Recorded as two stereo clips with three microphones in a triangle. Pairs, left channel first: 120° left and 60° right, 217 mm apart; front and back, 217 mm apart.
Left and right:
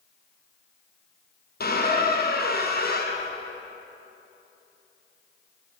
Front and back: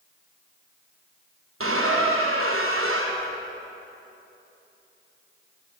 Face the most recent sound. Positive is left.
turn(degrees=165)